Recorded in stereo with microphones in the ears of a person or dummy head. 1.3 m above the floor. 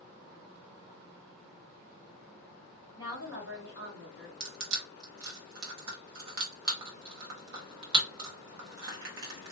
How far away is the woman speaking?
About 1.1 m.